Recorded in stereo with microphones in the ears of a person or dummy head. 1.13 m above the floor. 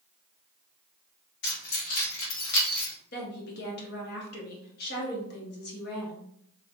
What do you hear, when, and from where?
1.4 s keys jangling: 55° left (ahead or behind), 1.6 m; by 2.9 s 65° left (ahead or behind), 1.4 m
3.1 s a woman speaking: 55° left (ahead or behind), 1.1 m